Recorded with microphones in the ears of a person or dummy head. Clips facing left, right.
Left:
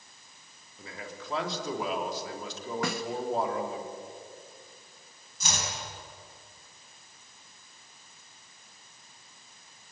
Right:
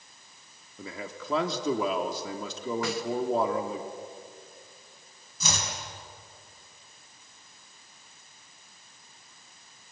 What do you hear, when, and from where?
0.8 s a man speaking: 85° right, 3.5 m
2.8 s a snare drum: 55° left (ahead or behind), 1.1 m
5.4 s chopping: 80° right, 7 m